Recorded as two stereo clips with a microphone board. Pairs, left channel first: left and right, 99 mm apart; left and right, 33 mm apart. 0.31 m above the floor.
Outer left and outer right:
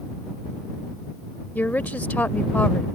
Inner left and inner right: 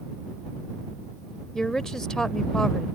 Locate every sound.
1.6 s a woman speaking: 15° left (ahead or behind)